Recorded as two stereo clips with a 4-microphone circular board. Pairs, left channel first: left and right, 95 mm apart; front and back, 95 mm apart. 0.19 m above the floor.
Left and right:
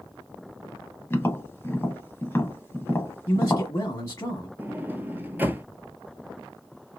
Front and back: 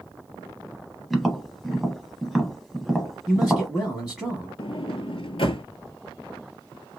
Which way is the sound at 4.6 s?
20° right.